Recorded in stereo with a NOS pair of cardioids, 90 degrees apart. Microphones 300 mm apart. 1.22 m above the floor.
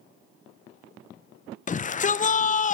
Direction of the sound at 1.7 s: 25° left.